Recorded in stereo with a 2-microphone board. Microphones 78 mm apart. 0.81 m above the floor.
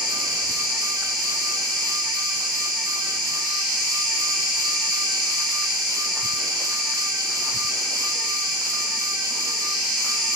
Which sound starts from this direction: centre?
An insect, at 0.0 s.